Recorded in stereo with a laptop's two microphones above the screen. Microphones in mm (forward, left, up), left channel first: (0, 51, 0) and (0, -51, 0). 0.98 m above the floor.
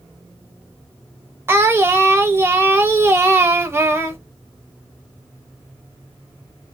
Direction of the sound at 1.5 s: 25° right (ahead or behind).